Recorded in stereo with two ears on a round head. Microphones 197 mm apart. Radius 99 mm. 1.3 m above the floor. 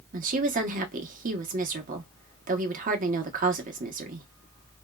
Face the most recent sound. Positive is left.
turn(degrees=-40)  # may be behind; listen again after turning